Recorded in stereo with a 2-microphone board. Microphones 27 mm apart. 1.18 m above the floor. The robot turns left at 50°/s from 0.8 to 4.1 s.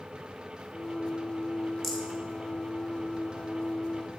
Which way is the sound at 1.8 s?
Centre (ahead or behind).